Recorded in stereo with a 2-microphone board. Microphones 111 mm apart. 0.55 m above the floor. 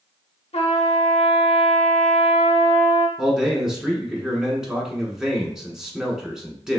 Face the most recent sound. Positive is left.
turn(degrees=-5)  # may be behind; listen again after turning